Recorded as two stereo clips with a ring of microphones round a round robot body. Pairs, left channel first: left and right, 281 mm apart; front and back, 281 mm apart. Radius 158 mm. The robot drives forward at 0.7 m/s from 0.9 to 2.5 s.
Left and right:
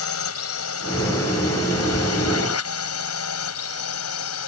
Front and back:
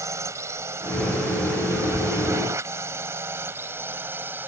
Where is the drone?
100° left.